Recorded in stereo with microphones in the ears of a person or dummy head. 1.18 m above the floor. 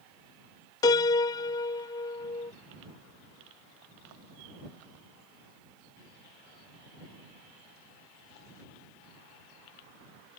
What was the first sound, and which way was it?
A piano, 15° left (ahead or behind).